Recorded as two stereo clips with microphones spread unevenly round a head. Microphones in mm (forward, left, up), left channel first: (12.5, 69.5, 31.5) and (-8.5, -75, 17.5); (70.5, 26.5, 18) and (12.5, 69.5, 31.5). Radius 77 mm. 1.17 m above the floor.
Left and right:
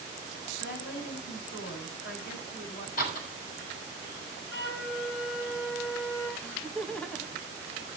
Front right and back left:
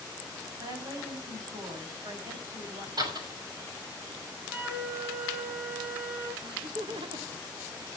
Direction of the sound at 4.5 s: 80° left.